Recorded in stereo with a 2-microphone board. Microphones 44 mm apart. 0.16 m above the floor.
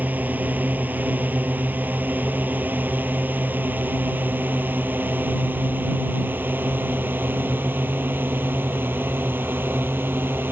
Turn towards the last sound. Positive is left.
turn(degrees=-50)  # may be behind; listen again after turning